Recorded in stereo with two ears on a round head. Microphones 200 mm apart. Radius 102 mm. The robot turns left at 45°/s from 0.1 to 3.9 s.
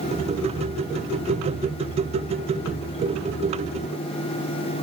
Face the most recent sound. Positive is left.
No sound to turn to.